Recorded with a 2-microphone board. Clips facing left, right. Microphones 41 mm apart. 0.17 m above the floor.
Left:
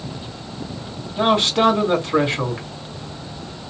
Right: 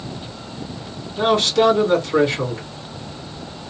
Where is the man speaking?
30° left (ahead or behind), 1.7 m.